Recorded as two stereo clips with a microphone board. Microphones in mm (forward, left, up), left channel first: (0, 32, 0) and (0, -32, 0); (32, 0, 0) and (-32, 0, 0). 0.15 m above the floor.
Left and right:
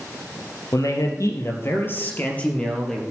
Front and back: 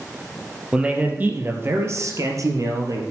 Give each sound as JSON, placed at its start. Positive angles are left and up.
{"t": 0.7, "sound": "a man speaking", "azimuth_deg": 110, "distance_m": 3.0}